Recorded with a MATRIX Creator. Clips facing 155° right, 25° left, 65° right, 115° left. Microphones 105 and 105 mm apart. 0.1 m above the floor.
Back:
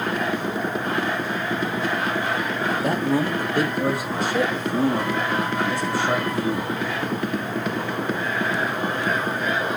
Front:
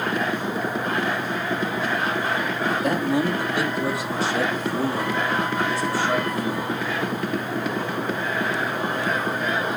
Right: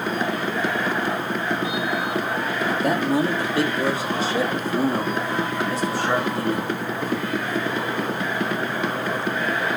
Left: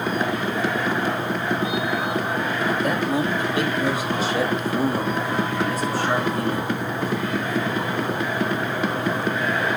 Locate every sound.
2.6 s a man speaking: 105° right, 1.9 m; by 6.7 s 125° right, 7.5 m